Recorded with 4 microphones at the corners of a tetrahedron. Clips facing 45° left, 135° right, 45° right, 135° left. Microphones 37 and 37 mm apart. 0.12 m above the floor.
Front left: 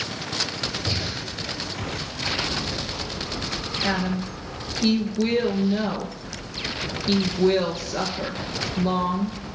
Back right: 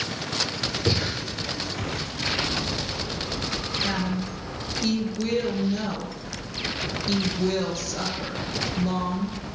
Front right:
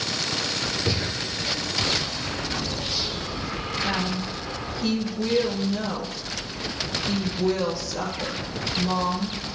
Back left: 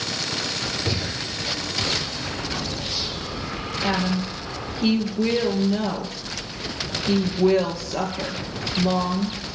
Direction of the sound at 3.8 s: 100° left.